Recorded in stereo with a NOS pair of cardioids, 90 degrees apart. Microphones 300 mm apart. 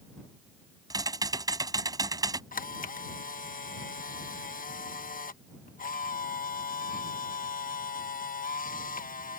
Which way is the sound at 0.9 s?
15° right.